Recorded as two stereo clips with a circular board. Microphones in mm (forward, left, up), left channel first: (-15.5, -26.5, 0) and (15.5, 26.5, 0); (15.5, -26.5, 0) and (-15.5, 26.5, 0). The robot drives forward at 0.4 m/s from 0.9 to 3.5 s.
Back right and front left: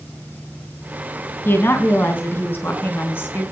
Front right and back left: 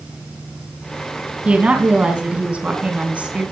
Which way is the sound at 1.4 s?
170° right.